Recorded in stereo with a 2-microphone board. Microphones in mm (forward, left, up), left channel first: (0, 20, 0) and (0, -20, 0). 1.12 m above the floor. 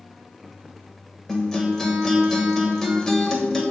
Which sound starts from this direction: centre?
A guitar, at 1.3 s.